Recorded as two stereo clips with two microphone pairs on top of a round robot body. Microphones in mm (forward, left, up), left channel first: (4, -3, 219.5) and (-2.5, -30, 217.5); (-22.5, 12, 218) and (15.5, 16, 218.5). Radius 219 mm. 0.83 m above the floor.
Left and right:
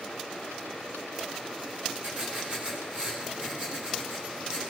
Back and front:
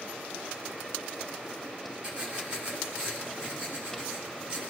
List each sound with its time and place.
2.0 s writing: 60° right, 3.5 m